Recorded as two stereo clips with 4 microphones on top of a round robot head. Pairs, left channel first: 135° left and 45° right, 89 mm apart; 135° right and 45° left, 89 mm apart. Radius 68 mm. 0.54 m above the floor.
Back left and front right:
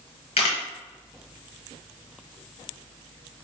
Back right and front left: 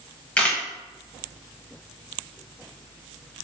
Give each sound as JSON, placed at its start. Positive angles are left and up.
{"t": 0.4, "sound": "a camera shutter", "azimuth_deg": 150, "distance_m": 0.5}